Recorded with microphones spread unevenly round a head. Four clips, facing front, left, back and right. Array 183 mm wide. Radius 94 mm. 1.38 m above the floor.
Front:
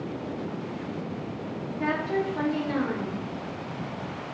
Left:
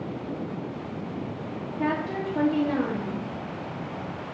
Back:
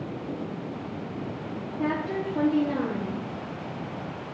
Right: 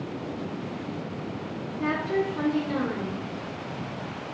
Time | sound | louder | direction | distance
1.8 | a woman speaking | right 1 dB, front 1 dB | 140° left | 0.7 m